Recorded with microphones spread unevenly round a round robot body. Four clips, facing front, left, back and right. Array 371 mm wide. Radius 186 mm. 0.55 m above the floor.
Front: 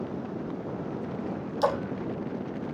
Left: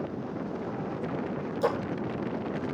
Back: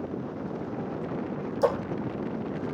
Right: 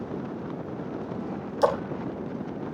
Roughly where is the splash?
Right.